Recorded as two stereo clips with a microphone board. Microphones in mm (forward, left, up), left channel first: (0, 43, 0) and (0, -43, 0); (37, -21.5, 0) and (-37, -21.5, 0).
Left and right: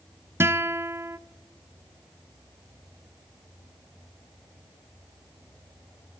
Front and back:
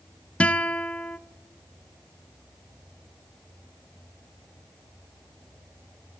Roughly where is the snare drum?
I don't hear a snare drum.